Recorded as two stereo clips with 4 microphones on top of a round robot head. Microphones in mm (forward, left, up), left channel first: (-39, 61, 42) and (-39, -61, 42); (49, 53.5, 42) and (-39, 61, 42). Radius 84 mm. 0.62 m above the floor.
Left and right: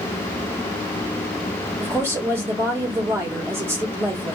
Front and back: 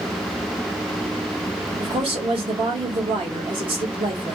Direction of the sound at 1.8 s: 160° right.